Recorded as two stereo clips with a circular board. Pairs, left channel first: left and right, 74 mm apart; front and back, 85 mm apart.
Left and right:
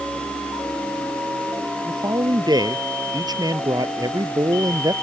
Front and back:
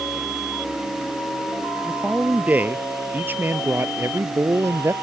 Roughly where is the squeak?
I don't hear a squeak.